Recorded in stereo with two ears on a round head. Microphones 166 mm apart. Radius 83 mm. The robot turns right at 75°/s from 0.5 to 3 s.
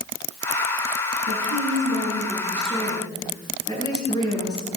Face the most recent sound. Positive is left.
turn(degrees=25)